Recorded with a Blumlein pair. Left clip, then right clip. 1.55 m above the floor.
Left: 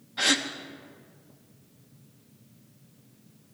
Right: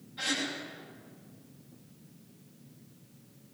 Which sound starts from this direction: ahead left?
A gasp, at 0.2 s.